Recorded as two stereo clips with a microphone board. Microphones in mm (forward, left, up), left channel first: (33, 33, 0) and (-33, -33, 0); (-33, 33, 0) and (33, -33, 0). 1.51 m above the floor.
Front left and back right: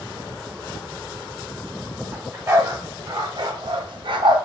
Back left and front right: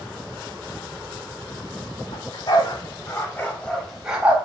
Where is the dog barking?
160° left, 3 m; by 4.4 s 120° right, 2.5 m.